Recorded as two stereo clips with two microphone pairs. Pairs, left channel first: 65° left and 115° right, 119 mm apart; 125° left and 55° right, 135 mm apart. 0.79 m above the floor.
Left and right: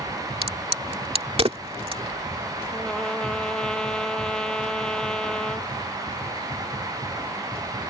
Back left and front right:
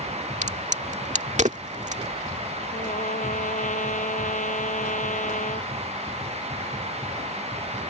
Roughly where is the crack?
Right.